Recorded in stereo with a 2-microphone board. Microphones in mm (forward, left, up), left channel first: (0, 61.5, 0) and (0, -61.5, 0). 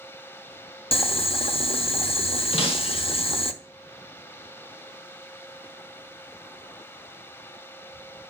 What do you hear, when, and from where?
0.9 s boiling: 50° left (ahead or behind), 0.7 m
2.5 s breaking glass: 50° left (ahead or behind), 1.5 m